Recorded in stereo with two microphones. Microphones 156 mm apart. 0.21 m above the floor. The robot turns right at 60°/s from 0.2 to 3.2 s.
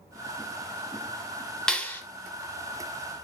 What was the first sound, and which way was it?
A clap, 5° left (ahead or behind).